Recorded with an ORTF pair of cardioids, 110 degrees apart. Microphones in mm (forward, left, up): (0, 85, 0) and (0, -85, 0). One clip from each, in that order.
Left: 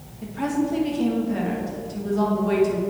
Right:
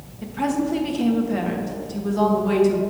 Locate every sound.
0.2 s a woman speaking: 15° right, 1.2 m